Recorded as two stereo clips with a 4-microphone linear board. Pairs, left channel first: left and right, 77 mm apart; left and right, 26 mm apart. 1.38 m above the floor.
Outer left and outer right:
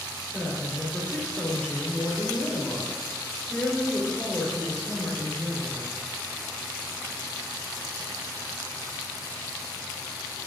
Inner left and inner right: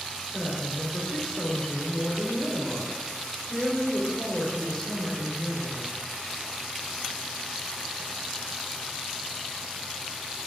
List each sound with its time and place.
0.3 s a woman speaking: 5° left (ahead or behind), 3 m